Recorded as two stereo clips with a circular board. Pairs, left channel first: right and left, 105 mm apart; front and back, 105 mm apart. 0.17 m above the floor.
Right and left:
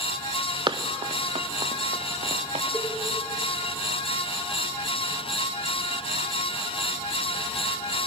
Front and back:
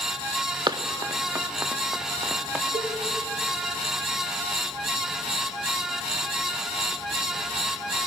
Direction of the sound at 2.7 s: Straight behind.